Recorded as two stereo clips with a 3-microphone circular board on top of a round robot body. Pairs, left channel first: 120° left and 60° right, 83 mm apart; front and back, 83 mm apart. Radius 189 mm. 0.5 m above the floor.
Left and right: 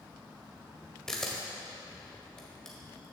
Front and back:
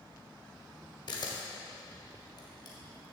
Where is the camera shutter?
35° left, 1.8 m.